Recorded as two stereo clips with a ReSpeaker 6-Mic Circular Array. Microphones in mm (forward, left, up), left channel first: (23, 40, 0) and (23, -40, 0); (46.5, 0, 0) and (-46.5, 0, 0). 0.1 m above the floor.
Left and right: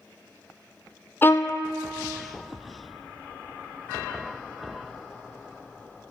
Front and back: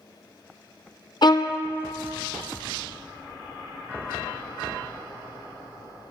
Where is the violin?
30° left, 0.5 m.